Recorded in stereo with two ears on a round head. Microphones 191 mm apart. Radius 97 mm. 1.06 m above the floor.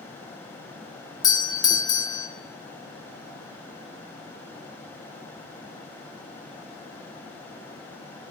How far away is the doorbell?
About 0.7 m.